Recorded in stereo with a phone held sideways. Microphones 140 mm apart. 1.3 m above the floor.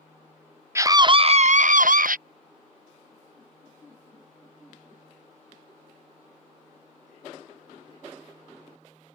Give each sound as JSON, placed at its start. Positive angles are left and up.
{"t": 0.8, "sound": "a scream", "side_deg": -20}